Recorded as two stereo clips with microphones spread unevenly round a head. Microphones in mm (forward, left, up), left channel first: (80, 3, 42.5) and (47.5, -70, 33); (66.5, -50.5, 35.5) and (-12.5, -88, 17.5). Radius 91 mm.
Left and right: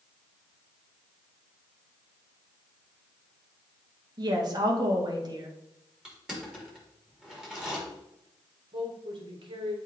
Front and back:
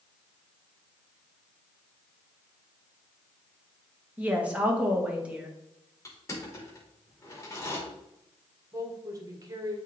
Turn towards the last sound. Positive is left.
turn(degrees=-105)